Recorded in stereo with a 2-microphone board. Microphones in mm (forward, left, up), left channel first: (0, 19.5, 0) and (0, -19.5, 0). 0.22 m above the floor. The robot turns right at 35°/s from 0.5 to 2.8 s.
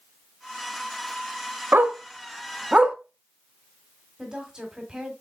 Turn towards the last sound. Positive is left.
turn(degrees=-20)  # may be behind; listen again after turning